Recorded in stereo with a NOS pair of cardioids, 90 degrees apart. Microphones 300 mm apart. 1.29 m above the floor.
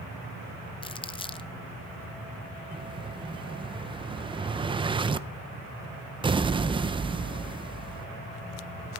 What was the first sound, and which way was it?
Crumpling, 15° left.